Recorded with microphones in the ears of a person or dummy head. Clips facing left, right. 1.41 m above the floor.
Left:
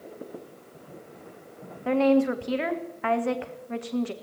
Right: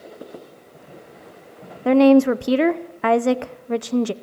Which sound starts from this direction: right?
A woman speaking, at 1.9 s.